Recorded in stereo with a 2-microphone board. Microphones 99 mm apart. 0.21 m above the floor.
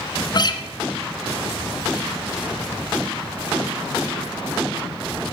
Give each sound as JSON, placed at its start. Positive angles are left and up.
{"t": 0.3, "sound": "a guitar", "side_deg": 45, "distance_m": 1.5}